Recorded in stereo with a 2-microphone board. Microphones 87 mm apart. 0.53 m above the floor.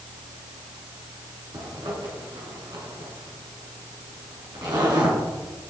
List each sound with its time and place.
1.5 s a zipper: 60° right (ahead or behind), 3.5 m